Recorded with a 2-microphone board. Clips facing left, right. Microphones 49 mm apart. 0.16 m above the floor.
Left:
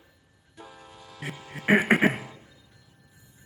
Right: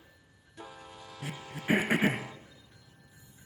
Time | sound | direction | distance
1.2 | throat clearing | 65° left (ahead or behind) | 0.6 m